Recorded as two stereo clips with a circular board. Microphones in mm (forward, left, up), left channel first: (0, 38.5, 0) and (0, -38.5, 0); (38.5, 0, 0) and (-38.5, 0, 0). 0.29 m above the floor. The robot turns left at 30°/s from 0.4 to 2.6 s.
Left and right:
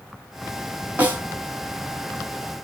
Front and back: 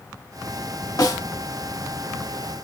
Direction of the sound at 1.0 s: 25° right.